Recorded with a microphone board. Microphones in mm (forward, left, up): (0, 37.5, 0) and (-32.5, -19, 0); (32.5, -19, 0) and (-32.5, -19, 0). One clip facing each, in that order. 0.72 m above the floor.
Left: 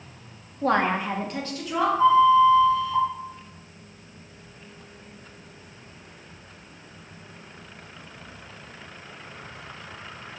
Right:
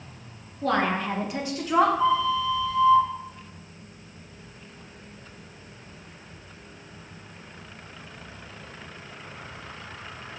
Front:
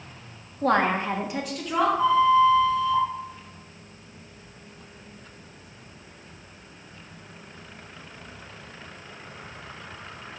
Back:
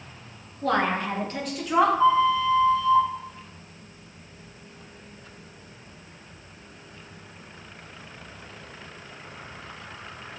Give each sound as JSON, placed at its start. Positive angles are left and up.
{"t": 0.6, "sound": "a woman speaking", "azimuth_deg": 25, "distance_m": 1.5}
{"t": 2.0, "sound": "a flute", "azimuth_deg": 5, "distance_m": 4.0}